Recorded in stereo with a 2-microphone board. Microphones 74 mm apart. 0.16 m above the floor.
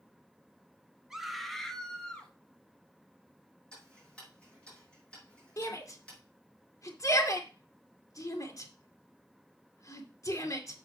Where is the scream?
5° right (ahead or behind), 1.4 m; by 2.3 s 15° left (ahead or behind), 2.5 m.